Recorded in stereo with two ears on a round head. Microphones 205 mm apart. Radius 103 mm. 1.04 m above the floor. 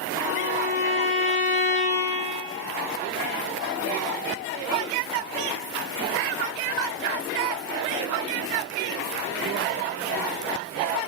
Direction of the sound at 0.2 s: 70° right (ahead or behind).